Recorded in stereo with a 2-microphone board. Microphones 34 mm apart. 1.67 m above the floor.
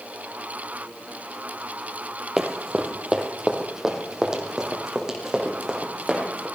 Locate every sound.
2.4 s running footsteps: 15° right (ahead or behind), 1.7 m